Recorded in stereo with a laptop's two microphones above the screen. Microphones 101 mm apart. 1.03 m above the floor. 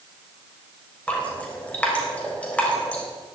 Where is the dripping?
15° left (ahead or behind), 4 m.